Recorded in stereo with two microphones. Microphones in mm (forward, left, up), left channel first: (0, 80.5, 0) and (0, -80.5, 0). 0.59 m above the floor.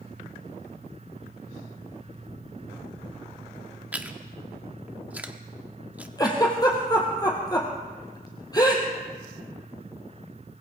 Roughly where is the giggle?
Left.